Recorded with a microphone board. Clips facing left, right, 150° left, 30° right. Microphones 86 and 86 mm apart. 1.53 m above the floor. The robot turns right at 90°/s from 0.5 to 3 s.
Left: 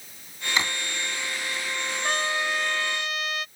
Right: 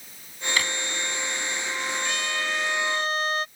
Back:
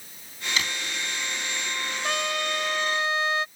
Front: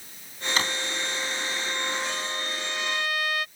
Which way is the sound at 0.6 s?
20° left.